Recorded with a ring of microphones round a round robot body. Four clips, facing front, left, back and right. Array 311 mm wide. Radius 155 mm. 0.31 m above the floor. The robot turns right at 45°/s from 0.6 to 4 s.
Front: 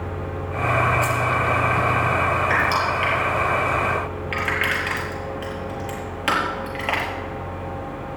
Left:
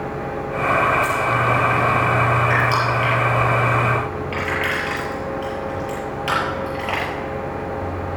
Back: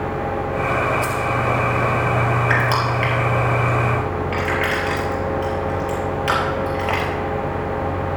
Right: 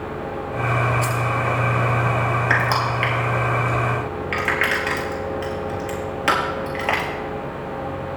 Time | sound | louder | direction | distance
1.0 | keys jangling | left 3 dB, even | 95° right | 4 m
2.5 | crushing | left 2 dB, back 1 dB | 130° right | 4.5 m